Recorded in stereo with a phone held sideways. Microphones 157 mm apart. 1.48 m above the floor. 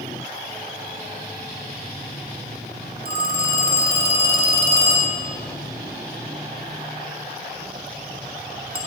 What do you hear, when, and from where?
3.0 s a phone ringing: 70° right (ahead or behind), 1.8 m